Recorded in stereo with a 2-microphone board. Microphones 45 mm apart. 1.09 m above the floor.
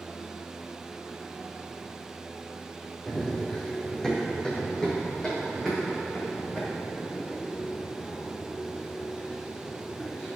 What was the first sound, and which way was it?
Running footsteps, 10° left (ahead or behind).